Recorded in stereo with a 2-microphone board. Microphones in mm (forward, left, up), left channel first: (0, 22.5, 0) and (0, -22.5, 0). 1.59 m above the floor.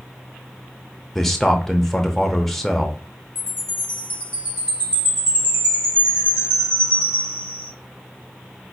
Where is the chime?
35° right (ahead or behind), 2.5 m.